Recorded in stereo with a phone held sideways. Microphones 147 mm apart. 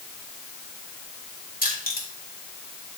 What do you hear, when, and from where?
1.6 s crushing: 70° left (ahead or behind), 3.5 m